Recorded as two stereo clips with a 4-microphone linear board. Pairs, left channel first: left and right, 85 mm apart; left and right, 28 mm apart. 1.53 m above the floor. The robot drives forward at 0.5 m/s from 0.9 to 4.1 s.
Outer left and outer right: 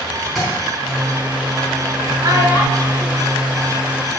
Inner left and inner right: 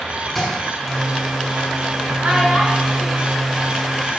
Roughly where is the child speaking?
Right.